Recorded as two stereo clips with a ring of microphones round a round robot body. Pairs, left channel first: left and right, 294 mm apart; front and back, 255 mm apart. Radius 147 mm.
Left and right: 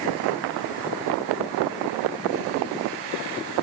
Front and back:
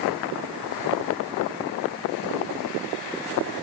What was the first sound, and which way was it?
Only background noise.